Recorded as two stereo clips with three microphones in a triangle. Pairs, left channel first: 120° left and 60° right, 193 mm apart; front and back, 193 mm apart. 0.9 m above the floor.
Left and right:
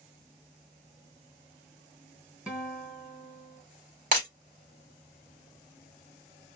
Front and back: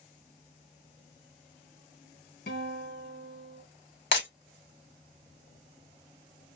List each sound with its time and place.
2.5 s a guitar: 25° left, 1.7 m
4.1 s breaking glass: 15° right, 2 m